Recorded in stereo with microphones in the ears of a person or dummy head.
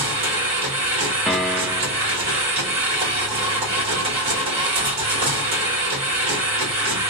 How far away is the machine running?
About 1.1 m.